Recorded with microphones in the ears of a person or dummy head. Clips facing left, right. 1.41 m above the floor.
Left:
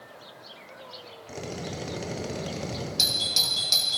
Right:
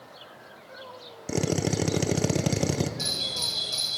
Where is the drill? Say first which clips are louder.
Right 9 dB; 60° right (ahead or behind), 0.7 m.